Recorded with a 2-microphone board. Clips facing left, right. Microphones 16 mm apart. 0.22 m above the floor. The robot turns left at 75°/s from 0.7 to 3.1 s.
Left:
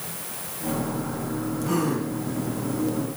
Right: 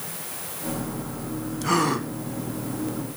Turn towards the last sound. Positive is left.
turn(degrees=180)